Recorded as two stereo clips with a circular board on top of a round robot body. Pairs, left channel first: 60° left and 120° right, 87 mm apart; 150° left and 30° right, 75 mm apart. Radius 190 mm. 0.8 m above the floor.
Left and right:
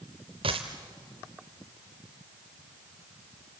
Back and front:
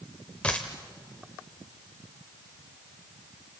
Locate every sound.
0.4 s a dropped coin: 135° right, 0.6 m